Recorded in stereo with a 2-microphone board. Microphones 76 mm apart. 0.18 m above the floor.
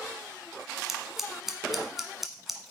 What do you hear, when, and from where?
0.9 s scissors: 5° right (ahead or behind), 1.3 m